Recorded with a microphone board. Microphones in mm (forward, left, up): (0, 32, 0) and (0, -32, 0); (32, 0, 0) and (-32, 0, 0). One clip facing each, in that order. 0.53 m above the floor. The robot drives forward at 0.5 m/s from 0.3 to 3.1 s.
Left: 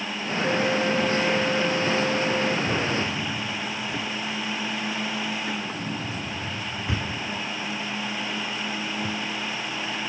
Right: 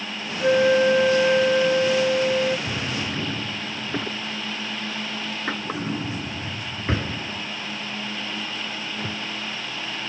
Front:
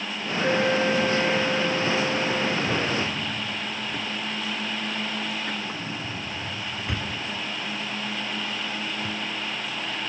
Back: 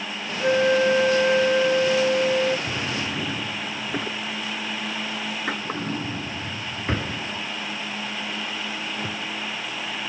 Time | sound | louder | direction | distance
0.4 | a flute | right 7 dB, back 4 dB | 115° right | ?
2.7 | a drawer | left 3 dB, front 2 dB | 130° right | ?